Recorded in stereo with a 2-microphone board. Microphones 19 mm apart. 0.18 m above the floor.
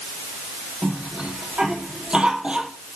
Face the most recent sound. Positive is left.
turn(degrees=-50)  # may be behind; listen again after turning